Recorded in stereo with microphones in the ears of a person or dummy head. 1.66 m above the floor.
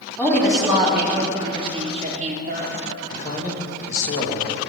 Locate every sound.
0.2 s a woman speaking: 5° left (ahead or behind), 3 m; by 2.7 s 65° right (ahead or behind), 2.5 m
3.1 s a man speaking: 45° left (ahead or behind), 2.5 m